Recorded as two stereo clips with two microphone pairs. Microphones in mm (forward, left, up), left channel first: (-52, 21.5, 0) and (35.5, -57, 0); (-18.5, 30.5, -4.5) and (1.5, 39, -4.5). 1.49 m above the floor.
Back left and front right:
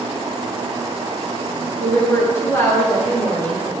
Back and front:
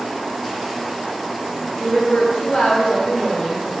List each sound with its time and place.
1.8 s a woman speaking: 150° right, 3.5 m